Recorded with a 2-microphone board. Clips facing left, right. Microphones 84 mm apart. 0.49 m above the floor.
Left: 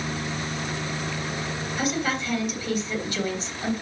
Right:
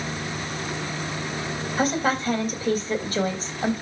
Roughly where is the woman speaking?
Right.